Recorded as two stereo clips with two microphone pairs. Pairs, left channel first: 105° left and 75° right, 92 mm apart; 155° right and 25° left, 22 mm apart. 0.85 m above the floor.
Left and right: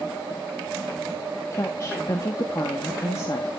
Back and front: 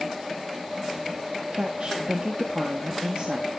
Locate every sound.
1.5 s a woman speaking: 55° left, 1.5 m